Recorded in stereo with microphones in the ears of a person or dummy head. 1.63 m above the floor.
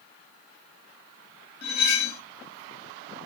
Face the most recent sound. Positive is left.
turn(degrees=60)  # may be behind; listen again after turning